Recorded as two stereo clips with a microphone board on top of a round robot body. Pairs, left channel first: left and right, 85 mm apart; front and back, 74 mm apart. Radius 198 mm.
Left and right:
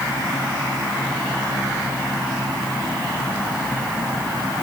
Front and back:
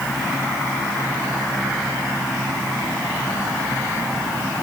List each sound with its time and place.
Only background noise.